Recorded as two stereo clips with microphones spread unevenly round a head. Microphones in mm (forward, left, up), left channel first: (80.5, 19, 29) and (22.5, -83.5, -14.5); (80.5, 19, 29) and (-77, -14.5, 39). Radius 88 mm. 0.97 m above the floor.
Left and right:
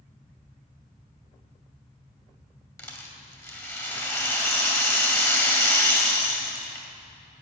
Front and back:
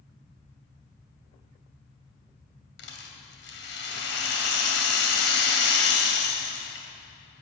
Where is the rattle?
5° right, 2.5 m.